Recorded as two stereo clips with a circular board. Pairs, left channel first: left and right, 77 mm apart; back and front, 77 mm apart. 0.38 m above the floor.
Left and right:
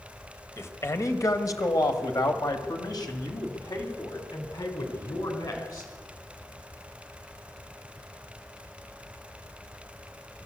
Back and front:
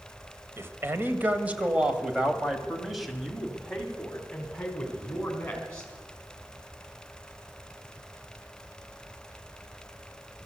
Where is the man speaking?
45° left, 1.8 m; by 5.9 s 110° left, 3.5 m.